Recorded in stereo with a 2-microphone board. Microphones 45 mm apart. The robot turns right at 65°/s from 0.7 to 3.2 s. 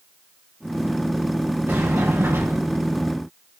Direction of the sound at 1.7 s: 135° right.